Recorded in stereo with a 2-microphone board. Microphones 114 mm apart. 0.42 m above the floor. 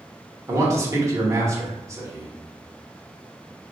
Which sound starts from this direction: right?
A man speaking, at 0.5 s.